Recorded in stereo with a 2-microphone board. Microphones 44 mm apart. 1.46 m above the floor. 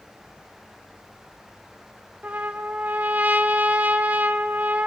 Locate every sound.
2.2 s a trumpet: 35° right (ahead or behind), 1.5 m